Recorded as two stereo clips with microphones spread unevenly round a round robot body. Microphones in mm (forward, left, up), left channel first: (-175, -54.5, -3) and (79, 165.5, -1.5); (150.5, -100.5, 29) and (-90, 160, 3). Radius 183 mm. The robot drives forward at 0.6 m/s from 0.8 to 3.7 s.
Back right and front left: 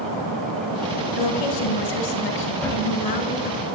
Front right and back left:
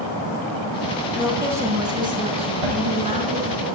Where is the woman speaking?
140° right, 2 m; by 3.6 s 160° right, 3.5 m.